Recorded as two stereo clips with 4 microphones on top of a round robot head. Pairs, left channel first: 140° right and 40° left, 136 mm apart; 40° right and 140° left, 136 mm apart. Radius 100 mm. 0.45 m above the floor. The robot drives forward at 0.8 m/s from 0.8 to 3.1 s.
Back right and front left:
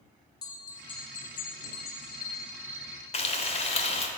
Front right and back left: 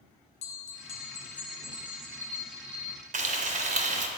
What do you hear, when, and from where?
0.4 s a bell: 80° right, 0.7 m; by 3.0 s 160° right, 1.8 m
3.1 s frying: 175° left, 0.8 m